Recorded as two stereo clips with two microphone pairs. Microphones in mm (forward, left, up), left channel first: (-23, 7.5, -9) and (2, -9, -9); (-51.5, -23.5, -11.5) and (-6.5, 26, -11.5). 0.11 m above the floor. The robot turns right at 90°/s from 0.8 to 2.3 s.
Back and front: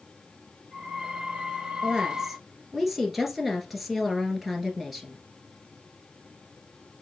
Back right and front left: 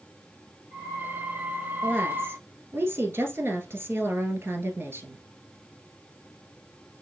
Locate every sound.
1.8 s a woman speaking: 10° left, 1.3 m; by 5.2 s 50° left, 1.3 m